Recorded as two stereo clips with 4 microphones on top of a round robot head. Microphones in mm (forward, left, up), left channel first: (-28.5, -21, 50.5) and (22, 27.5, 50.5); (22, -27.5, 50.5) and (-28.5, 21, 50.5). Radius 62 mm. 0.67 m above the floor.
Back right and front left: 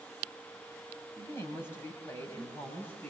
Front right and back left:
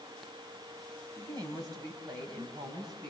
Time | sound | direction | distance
1.2 | a woman speaking | 170° left | 4.5 m